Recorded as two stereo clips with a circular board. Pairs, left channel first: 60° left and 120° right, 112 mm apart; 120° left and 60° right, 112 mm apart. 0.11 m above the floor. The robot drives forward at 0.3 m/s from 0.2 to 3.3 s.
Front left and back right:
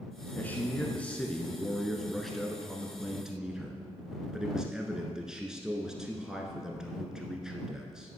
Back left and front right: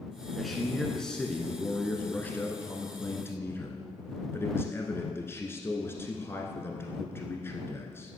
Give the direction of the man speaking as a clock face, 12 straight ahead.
11 o'clock.